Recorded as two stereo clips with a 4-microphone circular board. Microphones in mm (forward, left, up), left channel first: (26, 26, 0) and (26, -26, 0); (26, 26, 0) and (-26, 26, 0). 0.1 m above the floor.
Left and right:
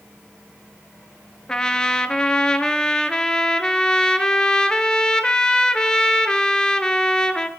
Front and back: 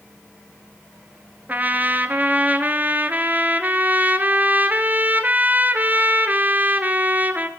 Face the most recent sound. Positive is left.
turn(degrees=150)